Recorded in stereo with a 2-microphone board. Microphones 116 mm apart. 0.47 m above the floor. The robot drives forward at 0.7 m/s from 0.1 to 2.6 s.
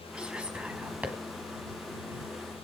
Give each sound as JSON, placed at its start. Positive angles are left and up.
{"t": 0.1, "sound": "whispering", "side_deg": -10, "distance_m": 4.0}